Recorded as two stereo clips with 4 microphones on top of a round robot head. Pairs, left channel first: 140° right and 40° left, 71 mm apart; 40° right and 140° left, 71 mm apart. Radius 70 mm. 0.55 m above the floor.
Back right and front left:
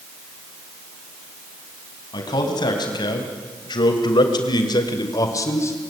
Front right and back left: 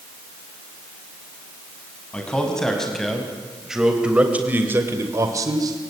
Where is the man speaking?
115° right, 5.5 m; by 5.9 s 165° left, 3 m.